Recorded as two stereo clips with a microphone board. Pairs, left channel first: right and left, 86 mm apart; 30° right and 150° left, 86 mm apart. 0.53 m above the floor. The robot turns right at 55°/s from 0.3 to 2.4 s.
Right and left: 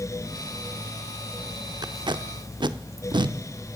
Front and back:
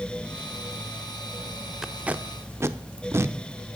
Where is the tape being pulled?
65° left, 0.6 m; by 3.4 s 95° left, 0.6 m.